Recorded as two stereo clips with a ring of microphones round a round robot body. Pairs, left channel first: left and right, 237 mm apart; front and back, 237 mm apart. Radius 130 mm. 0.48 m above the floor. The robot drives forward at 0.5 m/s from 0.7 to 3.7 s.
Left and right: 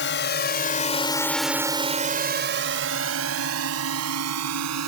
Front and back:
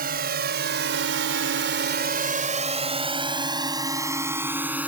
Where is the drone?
125° left; by 4.9 s 95° right.